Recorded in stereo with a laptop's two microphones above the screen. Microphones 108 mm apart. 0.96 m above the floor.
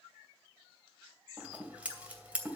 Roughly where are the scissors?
Centre.